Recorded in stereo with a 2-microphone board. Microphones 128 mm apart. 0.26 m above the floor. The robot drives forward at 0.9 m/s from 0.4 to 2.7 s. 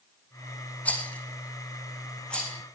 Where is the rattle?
10° left (ahead or behind), 3 m; by 2.6 s 5° left (ahead or behind), 4.5 m.